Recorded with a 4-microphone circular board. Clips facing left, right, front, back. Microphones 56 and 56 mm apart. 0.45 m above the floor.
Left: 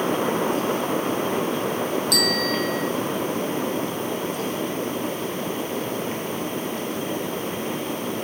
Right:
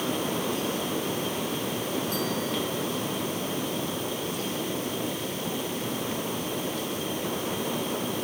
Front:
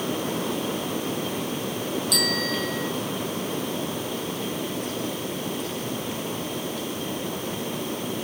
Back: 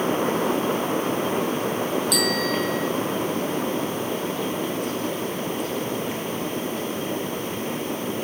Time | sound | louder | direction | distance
2.1 | a bicycle bell | left 6 dB, back 3 dB | 90° left | ?